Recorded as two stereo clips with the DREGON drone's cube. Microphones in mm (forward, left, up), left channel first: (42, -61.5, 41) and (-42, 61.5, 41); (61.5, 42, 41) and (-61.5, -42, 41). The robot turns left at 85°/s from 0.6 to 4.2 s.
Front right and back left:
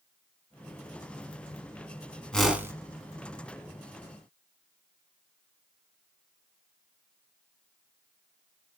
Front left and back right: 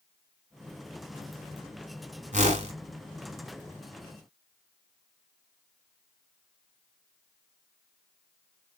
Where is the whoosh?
135° right, 1.2 m; by 2.7 s 170° right, 1.2 m.